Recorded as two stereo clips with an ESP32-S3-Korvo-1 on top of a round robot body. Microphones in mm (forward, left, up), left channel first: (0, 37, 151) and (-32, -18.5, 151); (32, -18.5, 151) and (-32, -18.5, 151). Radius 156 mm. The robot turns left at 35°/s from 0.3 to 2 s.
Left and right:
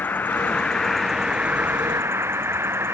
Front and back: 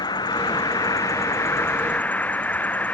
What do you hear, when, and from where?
0.0 s an insect: 5° right; by 2.9 s 65° right